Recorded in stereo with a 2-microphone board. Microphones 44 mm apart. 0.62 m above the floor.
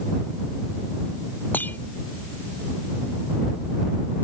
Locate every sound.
1.5 s breaking glass: 45° left (ahead or behind)